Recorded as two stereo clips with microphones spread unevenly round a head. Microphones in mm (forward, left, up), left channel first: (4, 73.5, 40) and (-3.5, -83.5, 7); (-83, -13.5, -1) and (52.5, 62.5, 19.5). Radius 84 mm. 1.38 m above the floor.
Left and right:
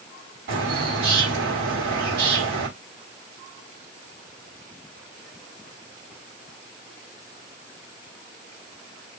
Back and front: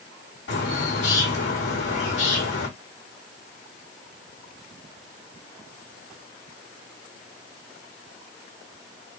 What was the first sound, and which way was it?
A bird, 120° right.